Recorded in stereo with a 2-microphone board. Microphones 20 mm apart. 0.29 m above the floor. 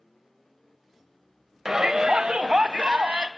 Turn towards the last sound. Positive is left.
turn(degrees=-60)  # may be behind; listen again after turning